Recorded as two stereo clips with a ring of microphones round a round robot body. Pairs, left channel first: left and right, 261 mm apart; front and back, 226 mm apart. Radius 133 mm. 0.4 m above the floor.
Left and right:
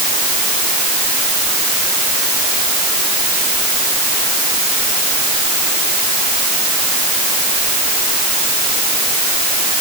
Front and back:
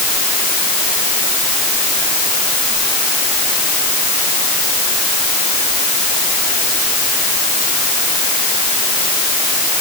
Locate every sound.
Only background noise.